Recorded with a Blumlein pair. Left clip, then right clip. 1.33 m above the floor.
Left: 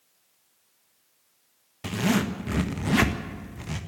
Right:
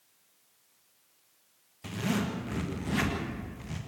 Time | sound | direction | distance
1.8 | a zipper | 65° left | 1.6 m